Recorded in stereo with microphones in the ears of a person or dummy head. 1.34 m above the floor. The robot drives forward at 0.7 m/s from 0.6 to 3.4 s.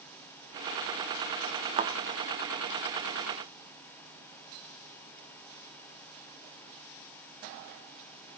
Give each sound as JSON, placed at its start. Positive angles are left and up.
{"t": 1.8, "sound": "a thud", "side_deg": -40, "distance_m": 1.3}